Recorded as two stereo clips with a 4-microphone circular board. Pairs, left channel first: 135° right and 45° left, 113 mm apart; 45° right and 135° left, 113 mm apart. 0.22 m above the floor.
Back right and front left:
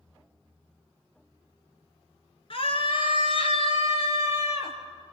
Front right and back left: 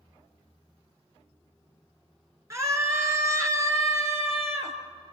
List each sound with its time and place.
2.5 s a scream: 165° right, 3 m; by 4.8 s 160° right, 4 m